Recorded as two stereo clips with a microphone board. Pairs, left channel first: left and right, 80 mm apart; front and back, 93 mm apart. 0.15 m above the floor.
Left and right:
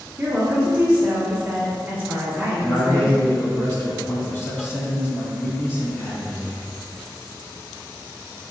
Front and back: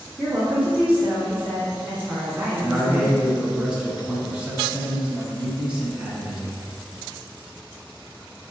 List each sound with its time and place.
0.2 s a woman speaking: 130° right, 1.5 m
2.6 s a man speaking: 110° left, 1.1 m